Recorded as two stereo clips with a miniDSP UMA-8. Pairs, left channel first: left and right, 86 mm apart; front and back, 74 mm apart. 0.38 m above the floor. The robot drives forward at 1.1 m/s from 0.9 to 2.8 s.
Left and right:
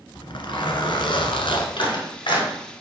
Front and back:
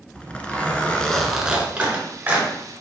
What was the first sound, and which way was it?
A zipper, 75° left.